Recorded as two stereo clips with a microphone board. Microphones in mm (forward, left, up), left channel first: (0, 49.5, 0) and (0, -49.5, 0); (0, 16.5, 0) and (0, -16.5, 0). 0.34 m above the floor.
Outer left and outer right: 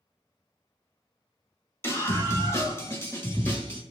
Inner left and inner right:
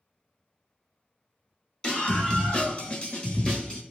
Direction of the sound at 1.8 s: 25° left (ahead or behind).